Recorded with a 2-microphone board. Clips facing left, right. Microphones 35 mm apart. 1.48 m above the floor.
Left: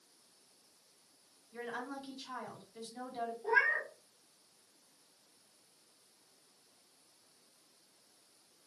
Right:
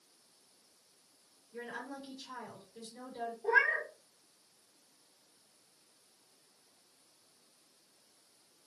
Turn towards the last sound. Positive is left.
turn(degrees=-5)  # may be behind; listen again after turning